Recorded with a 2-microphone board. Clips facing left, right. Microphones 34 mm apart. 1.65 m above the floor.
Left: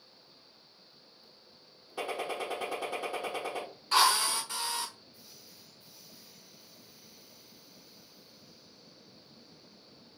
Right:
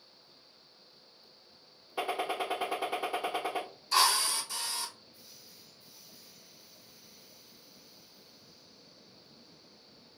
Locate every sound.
2.0 s a gunshot: 15° right (ahead or behind), 0.6 m
3.9 s a drill: 50° left (ahead or behind), 1.2 m